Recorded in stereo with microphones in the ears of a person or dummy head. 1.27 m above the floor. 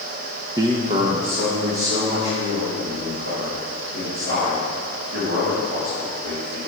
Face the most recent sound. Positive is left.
turn(degrees=-65)  # may be behind; listen again after turning